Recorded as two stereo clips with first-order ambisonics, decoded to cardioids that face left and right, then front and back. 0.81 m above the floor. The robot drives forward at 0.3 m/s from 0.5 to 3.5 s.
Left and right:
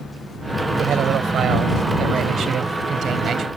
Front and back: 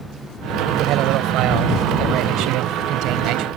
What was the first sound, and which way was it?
A man speaking, 145° right.